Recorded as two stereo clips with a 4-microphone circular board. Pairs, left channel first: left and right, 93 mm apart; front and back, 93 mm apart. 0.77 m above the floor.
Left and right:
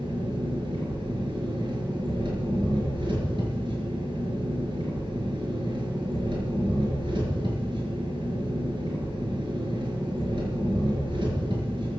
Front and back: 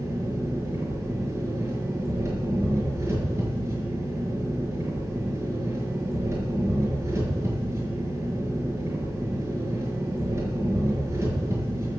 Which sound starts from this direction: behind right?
An engine running, at 0.0 s.